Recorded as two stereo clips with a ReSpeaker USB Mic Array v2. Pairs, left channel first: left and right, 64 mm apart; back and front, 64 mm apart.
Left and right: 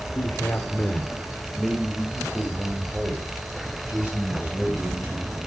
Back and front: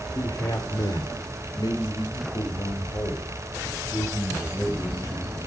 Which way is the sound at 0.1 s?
150° left.